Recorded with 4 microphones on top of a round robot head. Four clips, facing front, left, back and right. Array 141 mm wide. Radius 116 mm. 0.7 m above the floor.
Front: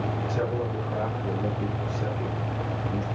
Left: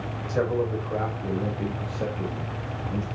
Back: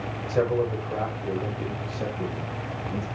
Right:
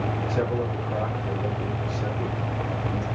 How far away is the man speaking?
About 4.5 m.